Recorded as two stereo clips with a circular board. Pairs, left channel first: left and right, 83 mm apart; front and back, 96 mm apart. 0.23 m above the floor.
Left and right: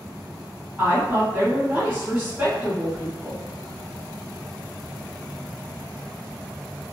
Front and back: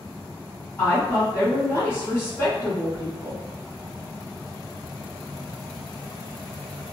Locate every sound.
0.8 s a woman speaking: 35° right, 1.6 m